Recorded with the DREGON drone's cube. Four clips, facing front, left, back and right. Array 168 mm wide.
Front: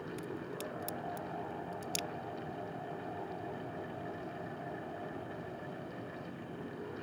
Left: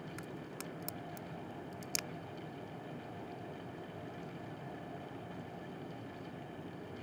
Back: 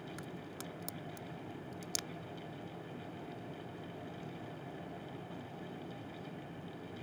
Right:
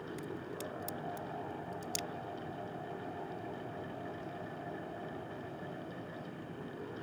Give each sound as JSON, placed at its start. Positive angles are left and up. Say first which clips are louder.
{"t": 0.2, "sound": "a crack", "louder": "right 4 dB, front 5 dB", "azimuth_deg": 130}